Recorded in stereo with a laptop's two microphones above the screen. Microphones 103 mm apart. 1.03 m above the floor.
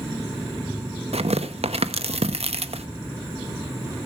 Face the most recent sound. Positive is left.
turn(degrees=-80)